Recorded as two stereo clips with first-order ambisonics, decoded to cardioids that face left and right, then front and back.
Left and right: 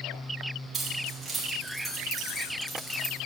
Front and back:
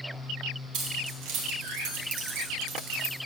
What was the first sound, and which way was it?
Keys jangling, 165° right.